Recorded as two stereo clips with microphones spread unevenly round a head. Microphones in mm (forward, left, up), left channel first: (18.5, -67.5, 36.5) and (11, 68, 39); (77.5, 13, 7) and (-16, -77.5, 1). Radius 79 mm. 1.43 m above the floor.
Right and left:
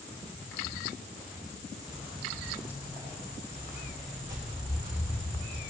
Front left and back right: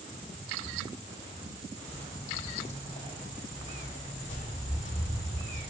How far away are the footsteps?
About 2.5 m.